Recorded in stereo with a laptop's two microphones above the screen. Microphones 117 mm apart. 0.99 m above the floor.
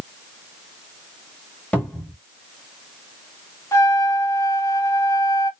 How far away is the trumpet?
About 0.8 m.